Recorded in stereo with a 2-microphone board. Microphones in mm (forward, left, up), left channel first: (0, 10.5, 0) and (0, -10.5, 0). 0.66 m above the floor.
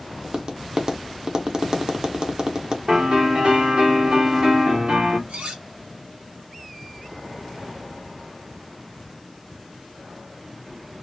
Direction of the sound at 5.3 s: 75° right (ahead or behind).